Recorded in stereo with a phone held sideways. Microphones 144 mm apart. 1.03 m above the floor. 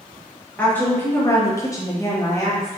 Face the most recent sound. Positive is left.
turn(degrees=20)  # may be behind; listen again after turning